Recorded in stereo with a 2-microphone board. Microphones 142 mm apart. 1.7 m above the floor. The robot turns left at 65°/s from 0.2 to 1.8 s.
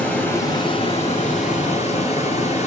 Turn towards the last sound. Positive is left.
turn(degrees=65)